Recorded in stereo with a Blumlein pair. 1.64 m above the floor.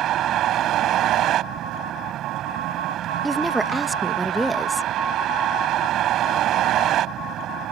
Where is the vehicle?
35° right.